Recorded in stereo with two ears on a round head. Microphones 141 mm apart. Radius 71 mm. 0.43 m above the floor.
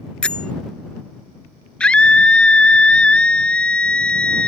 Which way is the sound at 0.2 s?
5° left (ahead or behind).